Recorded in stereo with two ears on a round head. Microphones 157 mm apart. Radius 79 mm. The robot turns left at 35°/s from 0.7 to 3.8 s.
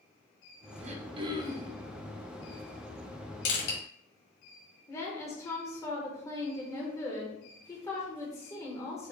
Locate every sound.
0.8 s throat clearing: 140° right, 0.6 m; by 1.8 s 170° right, 0.6 m
3.5 s crushing: 70° left (ahead or behind), 1.7 m; by 3.8 s 80° left, 1.7 m
4.9 s a woman speaking: 20° left (ahead or behind), 0.8 m